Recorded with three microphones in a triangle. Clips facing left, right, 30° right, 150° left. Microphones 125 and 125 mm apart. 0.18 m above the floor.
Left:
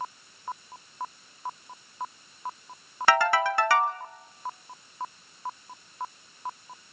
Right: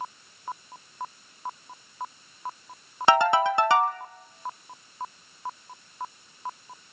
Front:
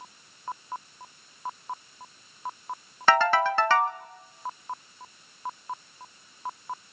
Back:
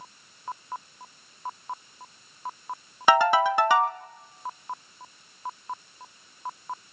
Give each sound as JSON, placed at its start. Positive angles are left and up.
{"t": 3.1, "sound": "a ringtone", "azimuth_deg": -145, "distance_m": 0.9}